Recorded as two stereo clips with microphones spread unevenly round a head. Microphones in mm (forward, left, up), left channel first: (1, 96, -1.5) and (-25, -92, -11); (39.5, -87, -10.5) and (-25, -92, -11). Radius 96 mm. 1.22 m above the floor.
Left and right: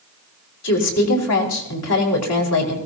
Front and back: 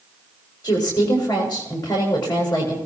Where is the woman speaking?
80° left, 5 m.